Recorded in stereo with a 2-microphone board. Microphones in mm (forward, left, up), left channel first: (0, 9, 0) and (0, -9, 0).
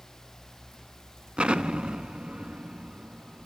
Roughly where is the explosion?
Right.